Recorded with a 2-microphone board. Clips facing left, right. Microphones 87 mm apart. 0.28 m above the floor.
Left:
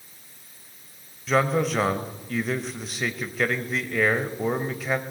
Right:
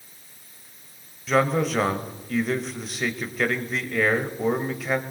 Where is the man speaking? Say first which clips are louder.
Right 1 dB; centre (ahead or behind), 1.0 m.